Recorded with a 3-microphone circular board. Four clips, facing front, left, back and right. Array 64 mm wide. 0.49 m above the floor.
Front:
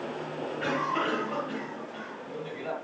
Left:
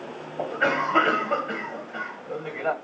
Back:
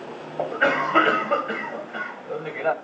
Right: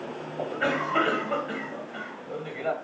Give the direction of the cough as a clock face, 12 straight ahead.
7 o'clock.